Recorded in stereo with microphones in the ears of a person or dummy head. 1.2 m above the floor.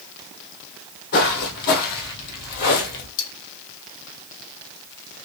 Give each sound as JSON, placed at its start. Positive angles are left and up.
{"t": 1.1, "sound": "footsteps", "side_deg": 50, "distance_m": 2.5}
{"t": 3.2, "sound": "cutlery clinking", "side_deg": 70, "distance_m": 1.1}